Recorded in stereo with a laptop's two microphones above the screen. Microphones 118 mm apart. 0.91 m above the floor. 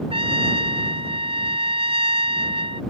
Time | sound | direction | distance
0.1 | a trumpet | 55° right (ahead or behind) | ?